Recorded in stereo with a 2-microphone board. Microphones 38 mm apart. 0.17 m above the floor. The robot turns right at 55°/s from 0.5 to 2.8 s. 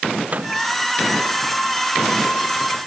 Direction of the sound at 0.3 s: 35° right (ahead or behind).